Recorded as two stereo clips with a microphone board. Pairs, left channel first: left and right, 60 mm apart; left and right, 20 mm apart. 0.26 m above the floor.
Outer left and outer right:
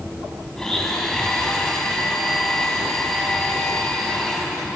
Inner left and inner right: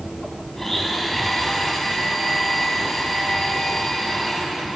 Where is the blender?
10° left (ahead or behind), 2.5 m.